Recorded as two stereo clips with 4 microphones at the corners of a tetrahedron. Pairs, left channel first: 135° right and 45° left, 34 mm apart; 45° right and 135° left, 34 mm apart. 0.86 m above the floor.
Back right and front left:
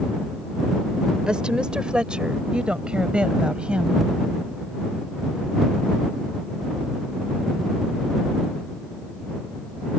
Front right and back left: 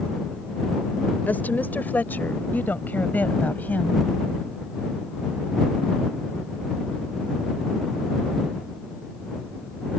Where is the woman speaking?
20° right; by 4.0 s 15° right.